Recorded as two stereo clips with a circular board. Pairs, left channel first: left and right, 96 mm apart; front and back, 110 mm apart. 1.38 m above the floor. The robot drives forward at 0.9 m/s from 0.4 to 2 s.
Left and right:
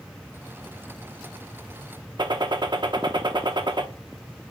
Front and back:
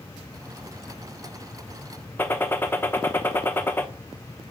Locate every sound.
2.2 s a gunshot: 70° right, 0.6 m